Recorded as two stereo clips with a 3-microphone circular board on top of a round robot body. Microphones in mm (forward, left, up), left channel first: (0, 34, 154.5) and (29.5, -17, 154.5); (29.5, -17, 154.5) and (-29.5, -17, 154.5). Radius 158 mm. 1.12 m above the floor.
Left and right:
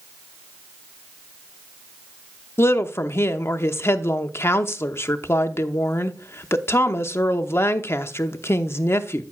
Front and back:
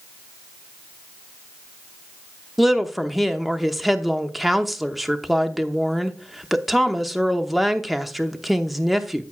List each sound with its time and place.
2.6 s a woman speaking: 90° left, 0.9 m